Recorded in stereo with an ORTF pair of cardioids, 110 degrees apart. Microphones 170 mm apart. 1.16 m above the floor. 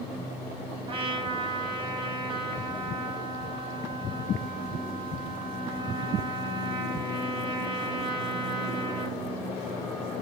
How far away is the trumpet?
About 8.5 m.